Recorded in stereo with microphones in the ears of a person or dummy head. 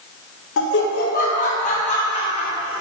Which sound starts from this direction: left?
Laughter, at 0.6 s.